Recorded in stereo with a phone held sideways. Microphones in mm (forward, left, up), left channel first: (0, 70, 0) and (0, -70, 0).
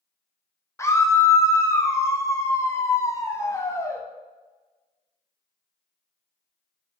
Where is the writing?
I don't hear writing.